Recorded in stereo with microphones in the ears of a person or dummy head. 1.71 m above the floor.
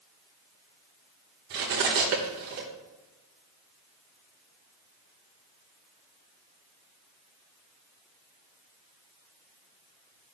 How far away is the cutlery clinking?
About 1.1 m.